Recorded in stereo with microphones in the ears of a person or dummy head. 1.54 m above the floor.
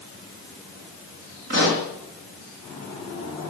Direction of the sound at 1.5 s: 50° right (ahead or behind).